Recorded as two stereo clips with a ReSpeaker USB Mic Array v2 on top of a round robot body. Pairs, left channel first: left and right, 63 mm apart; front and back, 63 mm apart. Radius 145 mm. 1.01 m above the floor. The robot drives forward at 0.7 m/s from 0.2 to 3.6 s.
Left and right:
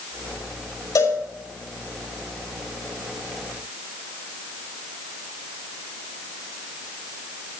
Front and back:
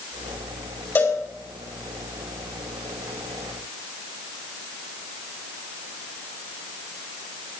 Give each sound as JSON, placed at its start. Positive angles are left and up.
{"t": 0.9, "sound": "a cowbell", "azimuth_deg": 55, "distance_m": 5.5}